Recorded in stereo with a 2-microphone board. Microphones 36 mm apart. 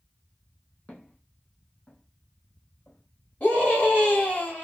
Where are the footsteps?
35° left (ahead or behind), 1.8 m; by 4.0 s 25° left (ahead or behind), 3 m.